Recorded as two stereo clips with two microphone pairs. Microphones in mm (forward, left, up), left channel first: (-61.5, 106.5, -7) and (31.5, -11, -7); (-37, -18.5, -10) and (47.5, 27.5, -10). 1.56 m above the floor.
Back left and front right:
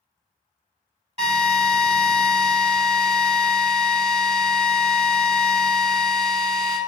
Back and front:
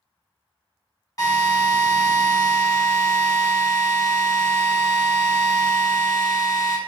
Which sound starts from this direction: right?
A drill, at 1.2 s.